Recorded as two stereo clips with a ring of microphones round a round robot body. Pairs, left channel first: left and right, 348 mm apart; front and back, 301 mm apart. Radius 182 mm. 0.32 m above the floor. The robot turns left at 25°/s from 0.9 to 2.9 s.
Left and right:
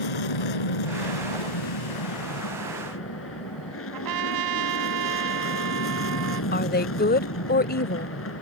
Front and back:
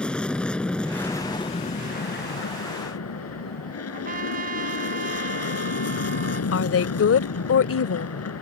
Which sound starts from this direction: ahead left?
A woman speaking, at 6.5 s.